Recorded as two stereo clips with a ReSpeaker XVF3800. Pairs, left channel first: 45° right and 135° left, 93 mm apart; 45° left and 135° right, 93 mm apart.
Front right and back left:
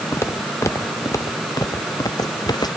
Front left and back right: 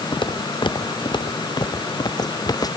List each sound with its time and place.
0.1 s footsteps: 15° left; by 2.7 s straight ahead